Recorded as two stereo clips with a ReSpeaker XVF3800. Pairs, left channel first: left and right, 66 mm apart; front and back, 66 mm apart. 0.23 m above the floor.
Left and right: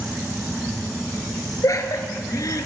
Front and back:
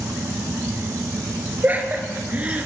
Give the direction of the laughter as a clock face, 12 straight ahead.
8 o'clock.